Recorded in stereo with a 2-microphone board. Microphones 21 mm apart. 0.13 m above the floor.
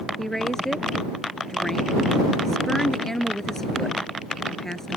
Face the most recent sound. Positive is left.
turn(degrees=20)  # may be behind; listen again after turning